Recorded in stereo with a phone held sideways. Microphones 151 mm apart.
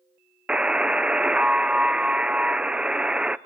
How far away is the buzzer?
About 0.5 m.